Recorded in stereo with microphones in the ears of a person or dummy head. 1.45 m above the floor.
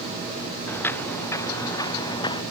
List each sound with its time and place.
0.7 s footsteps: 10° left (ahead or behind); by 2.4 s 25° left (ahead or behind)